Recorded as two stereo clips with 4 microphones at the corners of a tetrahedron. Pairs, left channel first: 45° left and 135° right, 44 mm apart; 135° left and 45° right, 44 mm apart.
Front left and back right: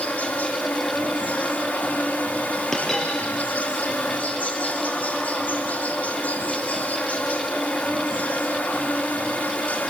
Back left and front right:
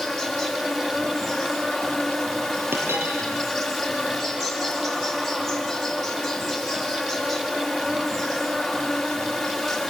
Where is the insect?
50° left, 2 m.